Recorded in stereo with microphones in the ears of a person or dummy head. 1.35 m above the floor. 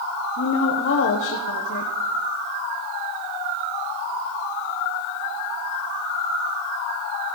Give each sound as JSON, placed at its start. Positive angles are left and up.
{"t": 0.4, "sound": "a woman speaking", "side_deg": 60, "distance_m": 1.0}